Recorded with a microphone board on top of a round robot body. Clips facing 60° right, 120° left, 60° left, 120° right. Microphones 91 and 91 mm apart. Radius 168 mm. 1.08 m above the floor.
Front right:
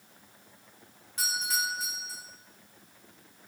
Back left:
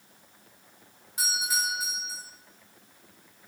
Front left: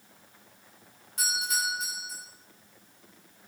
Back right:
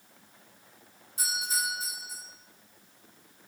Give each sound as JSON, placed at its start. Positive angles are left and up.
{"t": 1.2, "sound": "a doorbell", "azimuth_deg": 40, "distance_m": 4.0}